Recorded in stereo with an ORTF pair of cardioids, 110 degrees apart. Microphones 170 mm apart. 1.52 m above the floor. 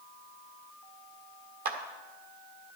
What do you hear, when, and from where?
1.6 s a clap: 60° right, 1.6 m